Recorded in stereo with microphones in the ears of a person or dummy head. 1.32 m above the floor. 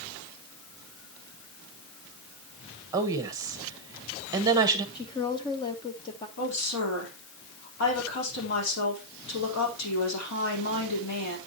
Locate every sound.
2.9 s a woman speaking: 20° right (ahead or behind), 1.3 m
5.0 s a woman speaking: 20° left (ahead or behind), 0.8 m
6.4 s a woman speaking: 80° left, 3.5 m